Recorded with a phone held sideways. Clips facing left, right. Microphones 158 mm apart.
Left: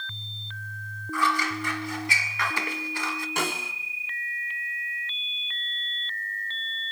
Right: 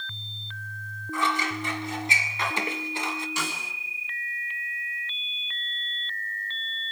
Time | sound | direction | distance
1.1 | scissors | 20° right (ahead or behind) | 1.6 m
3.4 | a snare drum | 55° left (ahead or behind) | 2 m